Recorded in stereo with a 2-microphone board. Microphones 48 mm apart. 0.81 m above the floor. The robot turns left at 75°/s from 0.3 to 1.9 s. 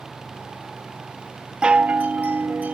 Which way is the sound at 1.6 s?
15° right (ahead or behind).